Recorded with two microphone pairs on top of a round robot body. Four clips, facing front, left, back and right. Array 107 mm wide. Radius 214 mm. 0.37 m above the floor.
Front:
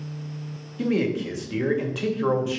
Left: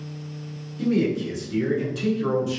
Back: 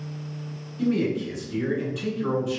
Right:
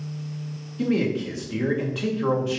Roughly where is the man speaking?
Ahead.